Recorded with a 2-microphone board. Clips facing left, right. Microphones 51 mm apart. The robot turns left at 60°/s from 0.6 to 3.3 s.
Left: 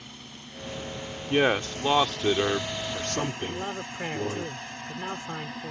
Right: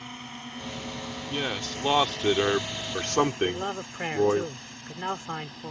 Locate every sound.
0.0 s a drone: 40° right (ahead or behind); by 5.7 s 60° left (ahead or behind)
1.3 s a man speaking: 50° left; by 4.5 s 70° right
3.5 s a man speaking: 25° right (ahead or behind)